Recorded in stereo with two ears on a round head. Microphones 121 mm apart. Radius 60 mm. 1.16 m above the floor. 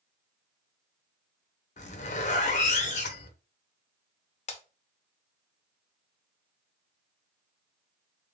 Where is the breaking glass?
50° left (ahead or behind), 0.7 m.